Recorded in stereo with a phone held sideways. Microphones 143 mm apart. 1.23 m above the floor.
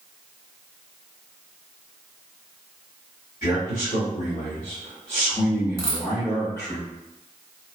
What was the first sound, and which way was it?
A man speaking, 70° left (ahead or behind).